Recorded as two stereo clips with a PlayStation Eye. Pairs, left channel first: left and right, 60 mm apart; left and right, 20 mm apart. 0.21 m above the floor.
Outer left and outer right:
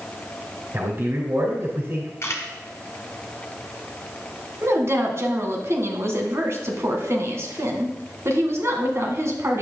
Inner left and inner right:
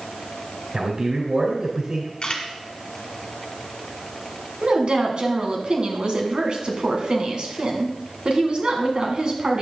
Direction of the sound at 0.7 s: 45° right (ahead or behind).